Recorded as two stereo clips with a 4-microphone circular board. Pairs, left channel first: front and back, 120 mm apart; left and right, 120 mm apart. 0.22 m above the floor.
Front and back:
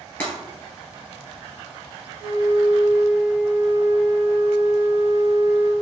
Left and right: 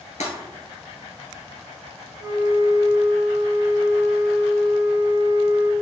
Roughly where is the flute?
Behind right.